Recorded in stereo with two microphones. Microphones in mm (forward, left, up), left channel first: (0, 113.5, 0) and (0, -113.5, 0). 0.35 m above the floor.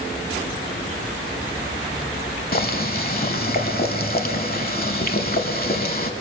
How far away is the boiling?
About 0.9 m.